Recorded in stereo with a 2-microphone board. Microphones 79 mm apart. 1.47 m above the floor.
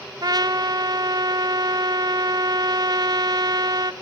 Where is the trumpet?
60° right (ahead or behind), 0.6 m.